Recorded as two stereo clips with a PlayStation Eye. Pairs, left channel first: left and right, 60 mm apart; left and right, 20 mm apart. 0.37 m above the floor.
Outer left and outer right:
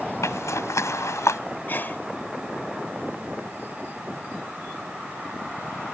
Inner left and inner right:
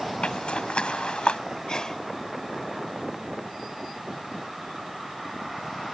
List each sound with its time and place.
0.2 s a zipper: 60° left (ahead or behind)
1.7 s a sneeze: 40° left (ahead or behind)